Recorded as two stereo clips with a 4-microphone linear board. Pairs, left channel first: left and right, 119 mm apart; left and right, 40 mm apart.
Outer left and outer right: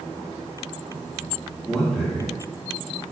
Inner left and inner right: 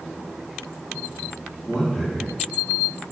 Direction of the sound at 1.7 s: Centre (ahead or behind).